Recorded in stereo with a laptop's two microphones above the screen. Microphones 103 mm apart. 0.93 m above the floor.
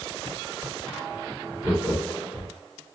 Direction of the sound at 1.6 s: 30° right (ahead or behind).